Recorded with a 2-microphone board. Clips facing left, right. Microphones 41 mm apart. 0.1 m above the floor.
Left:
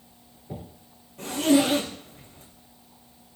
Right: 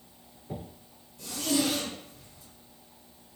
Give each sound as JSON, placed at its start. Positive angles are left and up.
{"t": 1.2, "sound": "a zipper", "side_deg": 65, "distance_m": 7.0}